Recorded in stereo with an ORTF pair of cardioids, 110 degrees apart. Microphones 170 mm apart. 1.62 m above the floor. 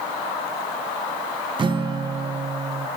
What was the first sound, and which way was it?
A guitar, 30° right.